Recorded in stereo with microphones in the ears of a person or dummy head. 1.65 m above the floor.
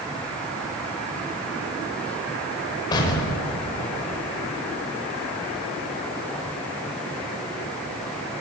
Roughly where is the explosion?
Left.